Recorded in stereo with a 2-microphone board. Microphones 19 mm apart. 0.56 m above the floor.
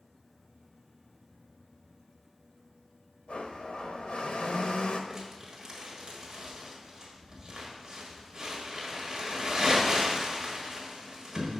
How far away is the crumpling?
About 1.4 m.